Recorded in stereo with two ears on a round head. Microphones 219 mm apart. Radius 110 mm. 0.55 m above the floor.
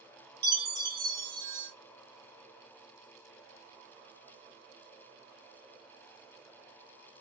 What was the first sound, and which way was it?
A chime, 20° right (ahead or behind).